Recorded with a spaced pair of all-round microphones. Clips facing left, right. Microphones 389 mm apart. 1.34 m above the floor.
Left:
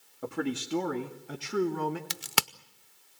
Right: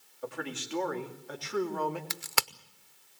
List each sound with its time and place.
0.2 s a man speaking: 60° left (ahead or behind), 2 m; by 2.0 s 30° left (ahead or behind), 2.5 m
2.1 s a crack: 45° left (ahead or behind), 0.6 m